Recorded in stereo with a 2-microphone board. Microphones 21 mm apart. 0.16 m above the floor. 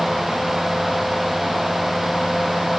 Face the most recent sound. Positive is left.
No sound to turn to.